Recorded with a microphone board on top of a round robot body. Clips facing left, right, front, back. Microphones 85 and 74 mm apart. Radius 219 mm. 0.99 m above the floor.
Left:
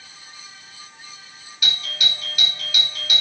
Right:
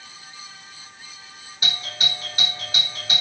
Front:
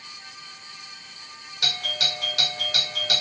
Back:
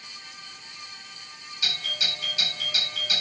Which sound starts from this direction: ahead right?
A doorbell, at 1.6 s.